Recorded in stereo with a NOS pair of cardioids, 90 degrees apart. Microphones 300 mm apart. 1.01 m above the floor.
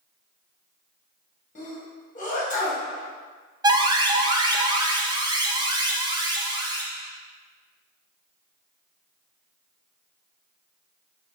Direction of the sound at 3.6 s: 15° right.